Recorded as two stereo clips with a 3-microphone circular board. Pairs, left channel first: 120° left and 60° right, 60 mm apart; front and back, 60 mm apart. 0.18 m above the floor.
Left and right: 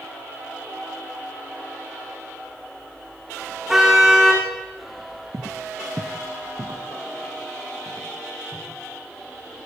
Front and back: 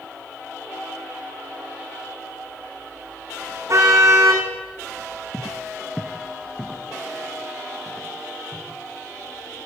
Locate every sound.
3.7 s a car horn: 145° right, 7 m
5.3 s footsteps: 85° right, 0.6 m; by 8.7 s 90° right, 5 m